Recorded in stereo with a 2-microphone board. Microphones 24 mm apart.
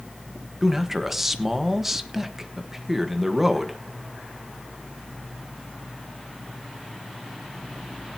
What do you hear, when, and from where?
0.6 s a man speaking: 10° right (ahead or behind), 1.3 m